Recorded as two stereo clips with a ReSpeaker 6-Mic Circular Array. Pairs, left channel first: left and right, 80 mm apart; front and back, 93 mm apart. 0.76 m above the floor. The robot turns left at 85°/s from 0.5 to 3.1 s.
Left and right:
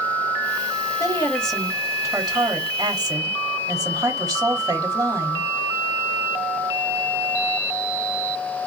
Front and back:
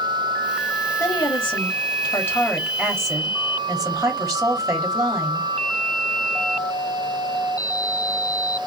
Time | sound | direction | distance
1.0 | a woman speaking | 45° left | 1.4 m